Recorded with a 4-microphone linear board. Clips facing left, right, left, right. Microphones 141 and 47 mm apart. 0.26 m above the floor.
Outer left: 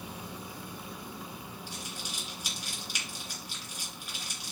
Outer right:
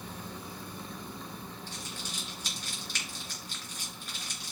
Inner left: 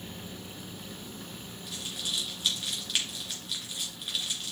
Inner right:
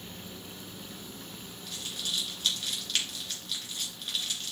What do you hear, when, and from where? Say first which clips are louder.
1.7 s crumpling: even, even; 10° left (ahead or behind), 3 m